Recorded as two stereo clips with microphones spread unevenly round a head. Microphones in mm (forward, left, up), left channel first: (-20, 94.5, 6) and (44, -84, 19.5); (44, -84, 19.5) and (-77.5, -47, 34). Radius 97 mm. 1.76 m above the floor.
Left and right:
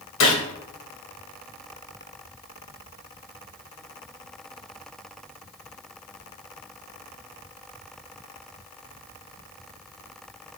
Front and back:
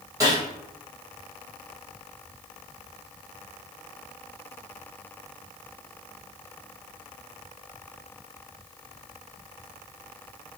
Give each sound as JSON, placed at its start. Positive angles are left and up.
{"t": 0.2, "sound": "a gunshot", "azimuth_deg": 95, "distance_m": 0.9}